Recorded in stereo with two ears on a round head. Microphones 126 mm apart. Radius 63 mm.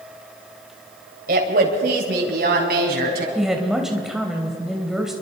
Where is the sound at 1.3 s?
70° right (ahead or behind), 2.5 m; by 3.2 s 80° right, 5 m.